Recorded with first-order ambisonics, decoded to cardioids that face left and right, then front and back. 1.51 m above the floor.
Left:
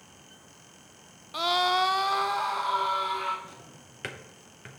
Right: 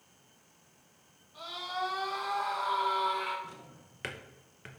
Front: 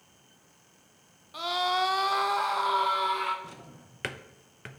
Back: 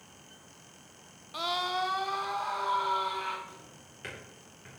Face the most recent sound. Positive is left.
turn(degrees=10)